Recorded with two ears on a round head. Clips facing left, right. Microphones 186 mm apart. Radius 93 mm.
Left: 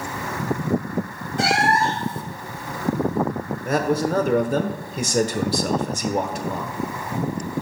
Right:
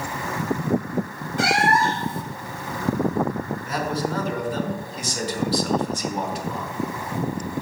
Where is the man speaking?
40° left (ahead or behind), 1.0 m.